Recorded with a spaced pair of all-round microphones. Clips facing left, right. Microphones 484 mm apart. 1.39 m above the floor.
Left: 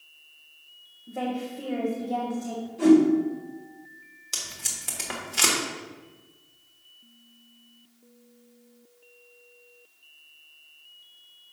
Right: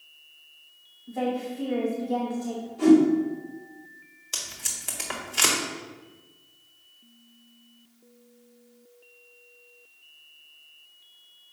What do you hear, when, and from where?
1.1 s a woman speaking: 50° left (ahead or behind), 1.3 m
2.8 s a whoosh: 45° left (ahead or behind), 3.5 m
4.3 s tape being pulled: 60° left (ahead or behind), 1.3 m